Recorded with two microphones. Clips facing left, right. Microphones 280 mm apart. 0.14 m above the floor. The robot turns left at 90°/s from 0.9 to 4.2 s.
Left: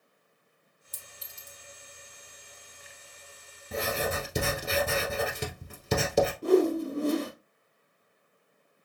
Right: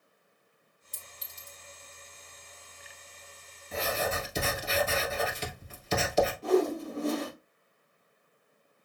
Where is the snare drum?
No snare drum in this recording.